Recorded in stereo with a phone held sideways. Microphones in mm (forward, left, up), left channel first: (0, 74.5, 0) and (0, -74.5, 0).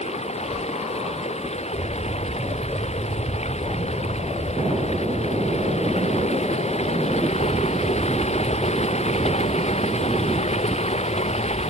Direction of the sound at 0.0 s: 45° left (ahead or behind).